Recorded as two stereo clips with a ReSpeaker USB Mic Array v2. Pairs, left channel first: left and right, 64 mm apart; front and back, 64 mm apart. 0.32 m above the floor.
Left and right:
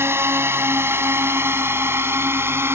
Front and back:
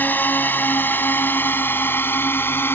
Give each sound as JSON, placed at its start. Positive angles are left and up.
{"t": 0.0, "sound": "a drone", "azimuth_deg": -50}